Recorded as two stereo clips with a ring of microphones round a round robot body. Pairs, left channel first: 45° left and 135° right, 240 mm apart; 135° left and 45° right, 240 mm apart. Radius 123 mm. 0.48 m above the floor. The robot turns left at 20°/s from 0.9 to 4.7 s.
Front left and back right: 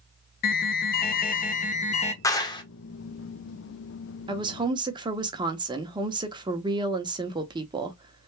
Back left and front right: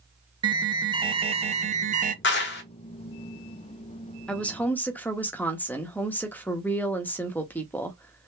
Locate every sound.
0.4 s an alarm: 20° left, 0.6 m; by 2.1 s 5° right, 0.6 m
2.2 s a clap: 120° left, 0.8 m; by 2.6 s 110° left, 0.8 m
4.3 s a woman speaking: 150° right, 0.7 m; by 8.3 s 155° right, 0.7 m